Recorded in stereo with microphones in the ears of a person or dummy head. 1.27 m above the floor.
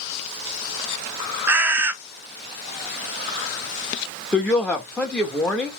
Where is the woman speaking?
10° left (ahead or behind), 0.7 m.